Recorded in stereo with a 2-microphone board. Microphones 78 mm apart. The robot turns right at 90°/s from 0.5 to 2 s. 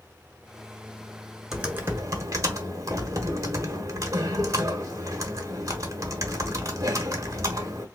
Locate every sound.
1.5 s typing on a keyboard: 175° right, 0.9 m; by 7.9 s 130° right, 0.9 m